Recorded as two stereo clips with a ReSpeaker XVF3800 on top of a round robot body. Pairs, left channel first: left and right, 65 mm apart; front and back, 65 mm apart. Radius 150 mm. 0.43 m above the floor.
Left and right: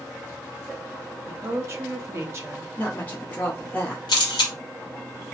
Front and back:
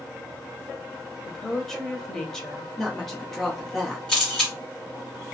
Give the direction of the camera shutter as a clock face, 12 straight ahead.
9 o'clock.